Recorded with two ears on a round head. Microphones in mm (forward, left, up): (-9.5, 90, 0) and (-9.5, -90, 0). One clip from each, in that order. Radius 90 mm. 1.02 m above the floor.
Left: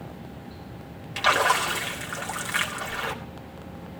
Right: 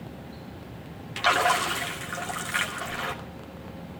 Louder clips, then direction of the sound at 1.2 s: Left 1 dB; 5° left (ahead or behind).